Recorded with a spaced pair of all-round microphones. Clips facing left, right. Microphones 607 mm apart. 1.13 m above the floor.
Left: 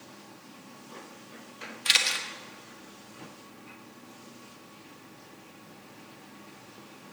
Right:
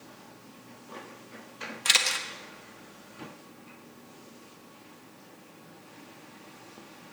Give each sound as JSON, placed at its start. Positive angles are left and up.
{"t": 1.9, "sound": "a camera shutter", "side_deg": -80, "distance_m": 1.1}